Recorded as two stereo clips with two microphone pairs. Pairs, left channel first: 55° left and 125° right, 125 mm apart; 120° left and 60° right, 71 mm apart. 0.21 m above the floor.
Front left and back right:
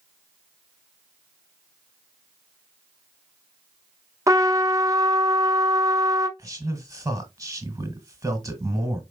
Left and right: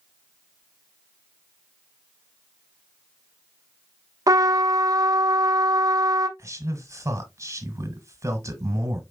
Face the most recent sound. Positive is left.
turn(degrees=-75)